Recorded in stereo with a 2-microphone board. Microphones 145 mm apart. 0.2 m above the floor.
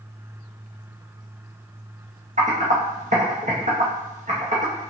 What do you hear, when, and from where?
2.4 s typing on a keyboard: 55° right (ahead or behind), 1.7 m